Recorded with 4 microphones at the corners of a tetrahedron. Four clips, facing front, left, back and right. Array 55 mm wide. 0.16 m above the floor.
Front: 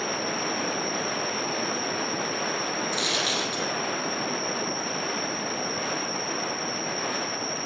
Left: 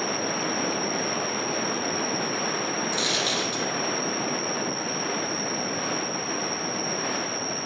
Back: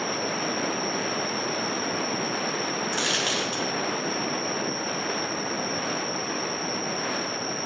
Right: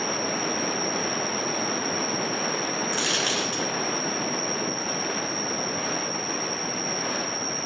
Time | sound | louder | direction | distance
0.0 | an insect | even, back 1 dB | straight behind | 1.8 m
2.9 | a dropped coin | right 1 dB, back 1 dB | 140° right | 1.0 m